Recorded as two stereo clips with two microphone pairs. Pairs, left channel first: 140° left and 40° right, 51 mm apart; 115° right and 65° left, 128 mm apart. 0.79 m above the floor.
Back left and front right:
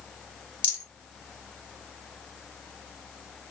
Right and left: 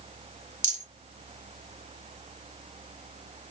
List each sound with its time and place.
0.6 s a rattle: 80° left, 3 m